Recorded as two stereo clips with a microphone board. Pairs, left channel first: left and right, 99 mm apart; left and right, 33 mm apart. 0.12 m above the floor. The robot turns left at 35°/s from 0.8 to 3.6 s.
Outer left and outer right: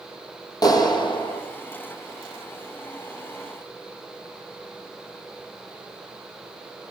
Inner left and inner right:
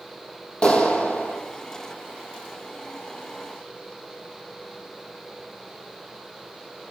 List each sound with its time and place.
0.6 s a clap: 40° left (ahead or behind), 3 m; by 1.4 s 60° left (ahead or behind), 3 m